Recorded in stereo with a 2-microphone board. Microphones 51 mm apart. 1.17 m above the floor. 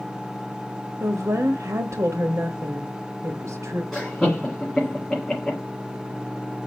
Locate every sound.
1.0 s a woman speaking: 75° right (ahead or behind), 0.8 m
3.9 s laughter: 10° left (ahead or behind), 2.5 m